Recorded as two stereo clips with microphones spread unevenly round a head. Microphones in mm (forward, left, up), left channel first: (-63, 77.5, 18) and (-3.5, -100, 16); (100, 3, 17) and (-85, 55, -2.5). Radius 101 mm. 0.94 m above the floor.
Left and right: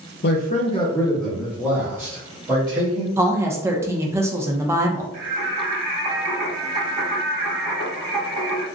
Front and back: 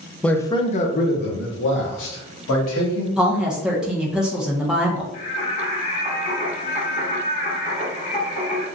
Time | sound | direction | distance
0.2 | a man speaking | 70° left | 0.6 m
3.2 | a woman speaking | 130° right | 0.7 m
5.1 | singing | 50° right | 1.8 m